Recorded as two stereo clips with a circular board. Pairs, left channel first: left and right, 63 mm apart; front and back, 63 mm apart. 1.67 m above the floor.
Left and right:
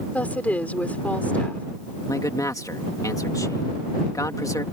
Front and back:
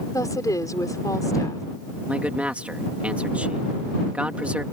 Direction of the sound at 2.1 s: 110° left.